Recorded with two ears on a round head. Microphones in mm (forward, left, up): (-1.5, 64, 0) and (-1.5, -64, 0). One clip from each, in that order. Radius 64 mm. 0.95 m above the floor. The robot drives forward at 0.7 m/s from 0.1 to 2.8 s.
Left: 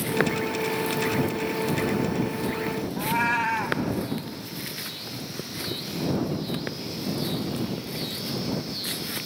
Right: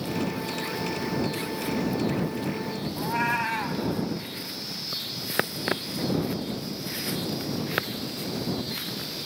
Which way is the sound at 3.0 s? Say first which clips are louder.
Left 2 dB; 10° left (ahead or behind).